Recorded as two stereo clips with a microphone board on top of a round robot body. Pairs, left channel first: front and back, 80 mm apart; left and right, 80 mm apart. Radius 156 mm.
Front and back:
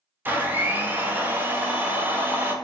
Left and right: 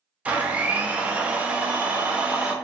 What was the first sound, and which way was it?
A blender, 145° right.